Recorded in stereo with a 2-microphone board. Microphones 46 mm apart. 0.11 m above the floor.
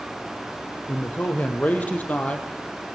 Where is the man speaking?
40° left (ahead or behind), 4.5 m; by 2.9 s 25° left (ahead or behind), 4 m.